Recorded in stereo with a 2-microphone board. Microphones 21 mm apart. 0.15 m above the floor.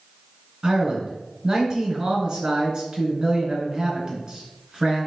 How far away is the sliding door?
I don't hear a sliding door.